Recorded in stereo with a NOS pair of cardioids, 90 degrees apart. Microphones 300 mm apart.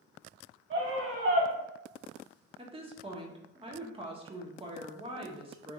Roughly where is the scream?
Ahead right.